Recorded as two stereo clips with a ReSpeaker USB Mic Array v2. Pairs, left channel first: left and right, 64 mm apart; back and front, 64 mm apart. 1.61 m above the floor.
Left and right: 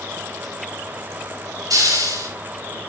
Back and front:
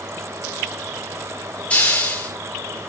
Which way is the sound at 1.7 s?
110° right.